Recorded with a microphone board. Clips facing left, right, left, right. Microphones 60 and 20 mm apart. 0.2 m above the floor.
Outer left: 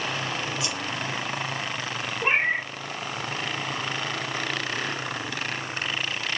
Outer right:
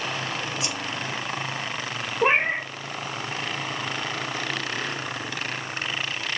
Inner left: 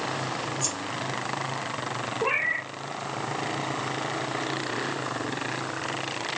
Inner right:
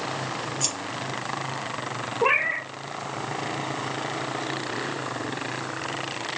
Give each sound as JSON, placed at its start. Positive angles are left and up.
{"t": 0.6, "sound": "scissors", "side_deg": -55, "distance_m": 3.5}
{"t": 2.2, "sound": "a cat meowing", "side_deg": -75, "distance_m": 0.7}